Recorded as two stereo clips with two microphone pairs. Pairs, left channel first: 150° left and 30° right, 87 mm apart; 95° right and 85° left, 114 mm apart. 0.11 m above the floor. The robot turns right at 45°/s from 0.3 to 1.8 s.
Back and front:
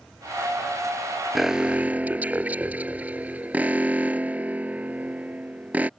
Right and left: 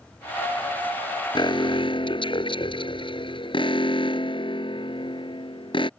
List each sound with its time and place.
1.4 s an alarm: 120° right; by 5.9 s 100° right